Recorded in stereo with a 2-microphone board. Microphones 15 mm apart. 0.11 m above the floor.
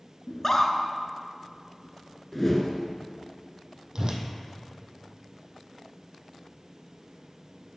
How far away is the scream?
About 1.2 m.